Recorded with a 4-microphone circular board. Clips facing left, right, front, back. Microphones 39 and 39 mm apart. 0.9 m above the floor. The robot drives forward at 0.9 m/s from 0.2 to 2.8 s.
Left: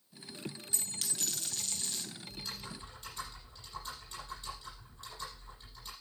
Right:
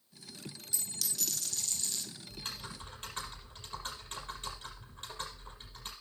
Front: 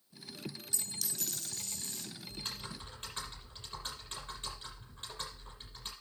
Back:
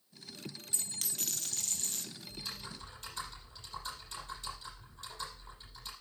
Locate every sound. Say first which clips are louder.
0.7 s a dropped coin: right 3 dB, even; 130° left, 1.5 m; by 2.1 s 155° left, 2.5 m
2.3 s typing on a keyboard: right 2 dB, front 1 dB; 50° right, 7 m; by 5.9 s 55° right, 6.5 m